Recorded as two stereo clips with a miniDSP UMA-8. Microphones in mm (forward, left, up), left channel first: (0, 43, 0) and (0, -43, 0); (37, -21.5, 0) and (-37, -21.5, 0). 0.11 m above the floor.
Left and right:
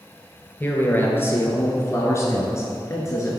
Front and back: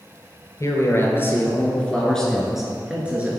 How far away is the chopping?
No chopping in this recording.